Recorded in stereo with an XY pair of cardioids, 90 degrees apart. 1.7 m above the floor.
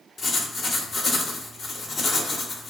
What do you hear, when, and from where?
0.2 s writing: 50° left, 0.7 m